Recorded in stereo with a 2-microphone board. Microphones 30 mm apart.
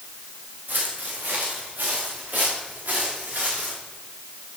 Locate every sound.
0.7 s footsteps: 70° right (ahead or behind), 4 m; by 3.8 s 65° right (ahead or behind), 5 m